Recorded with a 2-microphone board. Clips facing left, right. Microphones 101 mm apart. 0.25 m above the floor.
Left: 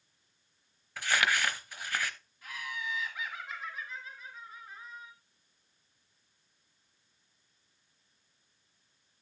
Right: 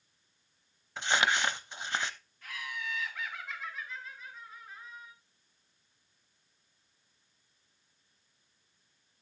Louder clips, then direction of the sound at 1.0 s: Right 1 dB; 25° right (ahead or behind).